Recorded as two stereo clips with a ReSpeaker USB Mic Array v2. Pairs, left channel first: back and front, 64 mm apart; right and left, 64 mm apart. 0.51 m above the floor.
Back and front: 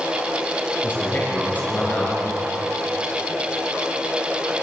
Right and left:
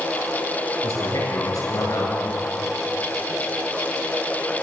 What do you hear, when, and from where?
0.8 s a man speaking: 115° right, 8.5 m